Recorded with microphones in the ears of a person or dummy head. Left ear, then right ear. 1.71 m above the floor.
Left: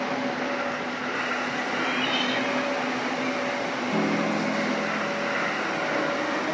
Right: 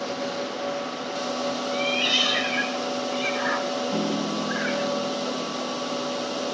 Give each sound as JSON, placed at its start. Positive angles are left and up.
{"t": 1.7, "sound": "a cat meowing", "side_deg": -40}
{"t": 3.9, "sound": "a piano", "side_deg": 5}